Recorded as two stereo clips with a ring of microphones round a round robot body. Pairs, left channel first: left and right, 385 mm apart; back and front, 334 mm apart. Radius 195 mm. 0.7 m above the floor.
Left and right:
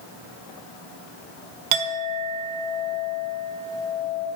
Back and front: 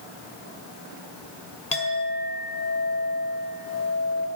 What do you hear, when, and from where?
1.7 s a clink: 105° right, 1.4 m